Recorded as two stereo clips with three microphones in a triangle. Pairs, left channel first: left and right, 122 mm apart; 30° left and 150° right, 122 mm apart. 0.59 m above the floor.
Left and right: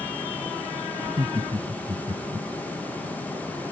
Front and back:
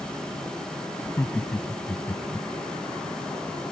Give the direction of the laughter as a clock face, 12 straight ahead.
1 o'clock.